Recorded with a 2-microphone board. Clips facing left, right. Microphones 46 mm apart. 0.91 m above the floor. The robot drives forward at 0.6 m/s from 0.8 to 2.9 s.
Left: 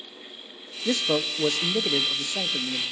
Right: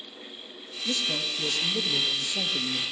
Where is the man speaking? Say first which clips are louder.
Left 5 dB; 60° left (ahead or behind), 0.8 m; by 2.8 s 35° left (ahead or behind), 1.3 m.